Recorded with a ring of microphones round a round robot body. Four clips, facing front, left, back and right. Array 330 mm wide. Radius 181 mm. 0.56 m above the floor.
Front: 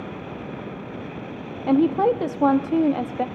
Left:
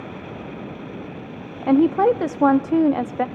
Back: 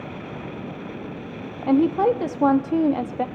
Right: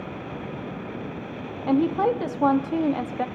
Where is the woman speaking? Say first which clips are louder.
Left 5 dB, even; 85° left, 0.6 m.